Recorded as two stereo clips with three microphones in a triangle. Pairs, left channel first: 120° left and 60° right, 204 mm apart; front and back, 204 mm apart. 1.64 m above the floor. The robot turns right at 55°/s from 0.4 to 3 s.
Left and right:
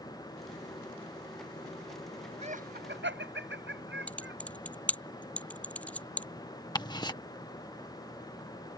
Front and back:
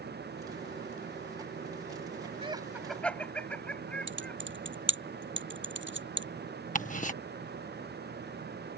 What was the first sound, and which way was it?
Laughter, 115° right.